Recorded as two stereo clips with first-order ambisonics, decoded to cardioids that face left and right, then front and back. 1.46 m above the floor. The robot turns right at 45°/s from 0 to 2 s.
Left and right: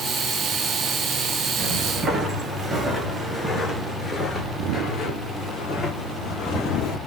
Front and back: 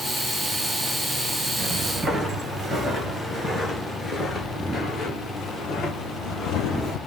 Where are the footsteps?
155° right, 1.7 m; by 7.0 s 45° left, 2.5 m.